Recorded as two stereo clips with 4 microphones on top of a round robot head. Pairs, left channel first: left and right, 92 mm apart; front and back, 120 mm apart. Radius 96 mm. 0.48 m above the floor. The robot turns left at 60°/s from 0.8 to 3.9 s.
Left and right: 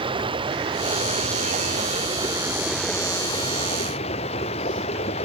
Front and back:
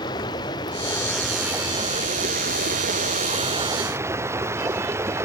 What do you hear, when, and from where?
0.0 s running water: 60° right; by 5.3 s 115° left